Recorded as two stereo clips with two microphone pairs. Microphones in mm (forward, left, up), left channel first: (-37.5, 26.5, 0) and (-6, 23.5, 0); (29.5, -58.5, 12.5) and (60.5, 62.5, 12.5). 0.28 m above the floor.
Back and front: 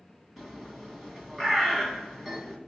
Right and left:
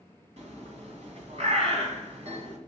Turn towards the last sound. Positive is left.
turn(degrees=80)